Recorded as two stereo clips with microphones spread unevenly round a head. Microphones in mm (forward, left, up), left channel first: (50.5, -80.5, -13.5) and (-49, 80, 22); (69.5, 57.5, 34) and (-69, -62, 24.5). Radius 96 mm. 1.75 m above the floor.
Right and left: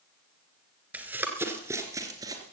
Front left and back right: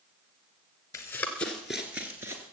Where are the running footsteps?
85° left, 1.8 m; by 2.4 s 155° left, 2.0 m.